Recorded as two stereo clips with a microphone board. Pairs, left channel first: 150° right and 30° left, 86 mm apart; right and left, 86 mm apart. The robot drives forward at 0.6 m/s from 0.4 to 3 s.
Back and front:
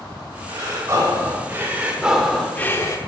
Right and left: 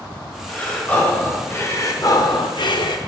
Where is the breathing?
20° right, 1.5 m; by 3.0 s 105° right, 0.6 m.